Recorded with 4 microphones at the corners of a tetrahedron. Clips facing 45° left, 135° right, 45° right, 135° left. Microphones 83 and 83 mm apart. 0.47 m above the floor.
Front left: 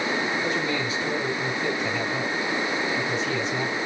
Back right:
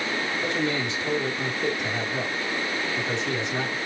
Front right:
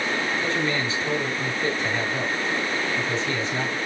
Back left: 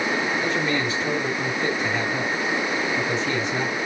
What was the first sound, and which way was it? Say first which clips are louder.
A man speaking: even, back left 1 dB; 150° right.